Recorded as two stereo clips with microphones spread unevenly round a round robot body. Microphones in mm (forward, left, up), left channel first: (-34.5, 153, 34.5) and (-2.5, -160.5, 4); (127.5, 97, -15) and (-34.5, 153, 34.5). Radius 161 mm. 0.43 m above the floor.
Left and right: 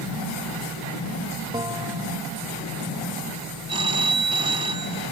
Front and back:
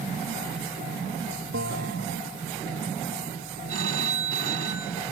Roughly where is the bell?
Behind.